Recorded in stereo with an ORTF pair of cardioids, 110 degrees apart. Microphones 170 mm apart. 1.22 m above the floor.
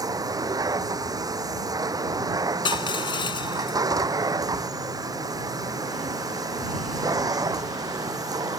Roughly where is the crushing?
Ahead left.